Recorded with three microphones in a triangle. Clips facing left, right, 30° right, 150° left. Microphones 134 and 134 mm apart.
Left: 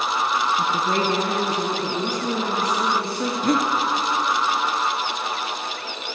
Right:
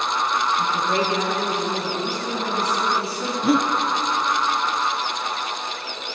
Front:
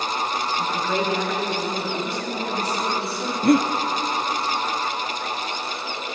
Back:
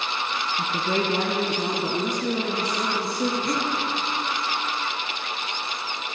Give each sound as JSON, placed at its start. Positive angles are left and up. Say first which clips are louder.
{"t": 0.6, "sound": "a woman speaking", "louder": "even, back 1 dB", "azimuth_deg": 125, "distance_m": 1.5}
{"t": 3.4, "sound": "breathing", "louder": "right 2 dB, front 10 dB", "azimuth_deg": 0, "distance_m": 0.9}